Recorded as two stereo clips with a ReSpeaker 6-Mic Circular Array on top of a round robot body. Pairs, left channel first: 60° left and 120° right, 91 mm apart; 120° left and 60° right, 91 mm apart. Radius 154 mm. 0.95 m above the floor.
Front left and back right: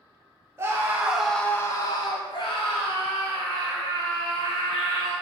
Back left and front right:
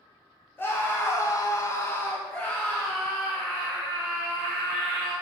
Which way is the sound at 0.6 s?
175° right.